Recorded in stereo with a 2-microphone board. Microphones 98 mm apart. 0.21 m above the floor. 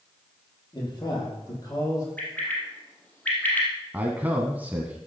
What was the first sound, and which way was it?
A man speaking, 45° left (ahead or behind).